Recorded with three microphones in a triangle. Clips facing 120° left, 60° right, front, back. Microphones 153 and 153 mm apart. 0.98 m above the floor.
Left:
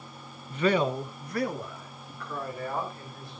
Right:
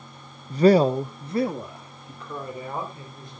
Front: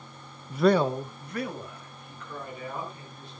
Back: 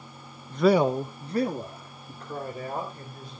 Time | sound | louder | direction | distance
0.5 | a man speaking | right 8 dB, back 1 dB | 60° right | 0.5 m